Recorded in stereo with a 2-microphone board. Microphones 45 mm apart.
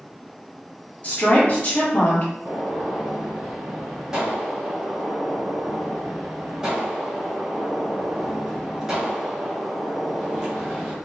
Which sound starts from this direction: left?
A woman speaking, at 1.0 s.